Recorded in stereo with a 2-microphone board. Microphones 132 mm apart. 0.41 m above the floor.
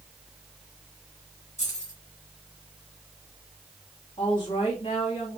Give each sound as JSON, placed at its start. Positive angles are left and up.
{"t": 1.6, "sound": "keys jangling", "side_deg": 60, "distance_m": 2.5}
{"t": 4.2, "sound": "a woman speaking", "side_deg": 40, "distance_m": 3.0}